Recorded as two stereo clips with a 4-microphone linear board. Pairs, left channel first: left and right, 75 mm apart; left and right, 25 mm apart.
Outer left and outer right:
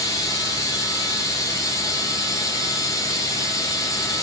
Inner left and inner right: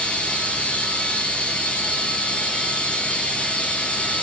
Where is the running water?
45° left (ahead or behind), 4 m.